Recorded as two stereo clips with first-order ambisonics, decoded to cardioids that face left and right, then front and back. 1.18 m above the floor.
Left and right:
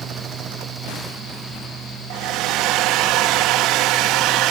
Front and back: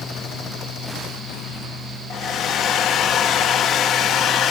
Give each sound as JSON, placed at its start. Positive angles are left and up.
{"t": 2.1, "sound": "a hair dryer", "azimuth_deg": -55, "distance_m": 0.7}